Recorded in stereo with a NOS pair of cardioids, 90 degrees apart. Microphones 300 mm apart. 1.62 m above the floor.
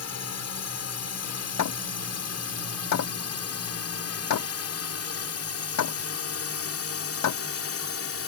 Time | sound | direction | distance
0.0 | a drone | 60° left | ?
1.6 | hammering | 65° left | ?